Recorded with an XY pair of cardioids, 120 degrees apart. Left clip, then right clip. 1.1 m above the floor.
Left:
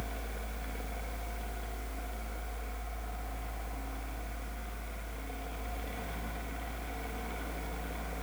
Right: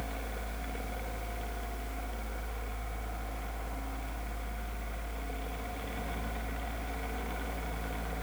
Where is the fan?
20° right, 1.4 m.